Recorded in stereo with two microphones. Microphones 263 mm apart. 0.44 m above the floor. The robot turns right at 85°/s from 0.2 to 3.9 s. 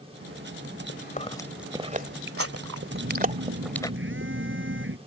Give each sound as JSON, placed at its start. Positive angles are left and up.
{"t": 0.9, "sound": "chewing", "side_deg": 50}
{"t": 2.9, "sound": "a phone buzzing", "azimuth_deg": -135}